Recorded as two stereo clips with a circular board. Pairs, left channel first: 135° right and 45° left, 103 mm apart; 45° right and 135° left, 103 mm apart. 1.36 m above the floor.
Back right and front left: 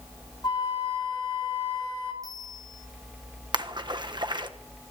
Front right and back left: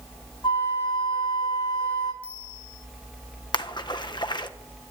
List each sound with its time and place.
0.4 s a flute: 90° right, 3.5 m
2.2 s a bell: 15° right, 4.5 m
3.5 s a splash: straight ahead, 1.3 m